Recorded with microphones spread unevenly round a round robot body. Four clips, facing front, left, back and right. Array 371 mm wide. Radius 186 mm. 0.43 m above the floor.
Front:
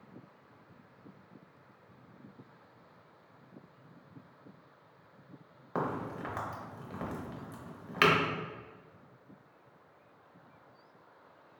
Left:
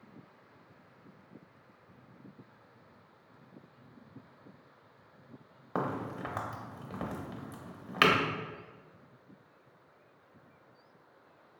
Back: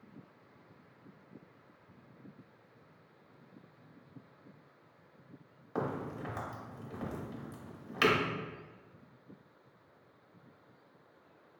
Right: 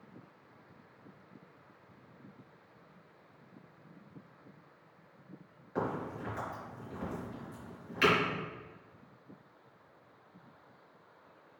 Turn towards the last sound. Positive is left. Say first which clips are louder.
# left 1 dB, front 2 dB
turn(degrees=65)